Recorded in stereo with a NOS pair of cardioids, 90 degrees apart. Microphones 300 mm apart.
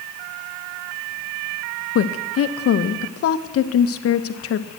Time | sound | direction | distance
1.9 | a woman speaking | 50° left | 0.7 m